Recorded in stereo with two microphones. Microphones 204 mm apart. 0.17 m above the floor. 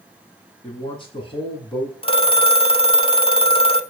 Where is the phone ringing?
25° left (ahead or behind), 0.7 m.